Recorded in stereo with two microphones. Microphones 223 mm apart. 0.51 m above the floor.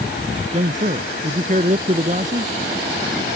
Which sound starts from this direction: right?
A man speaking, at 0.5 s.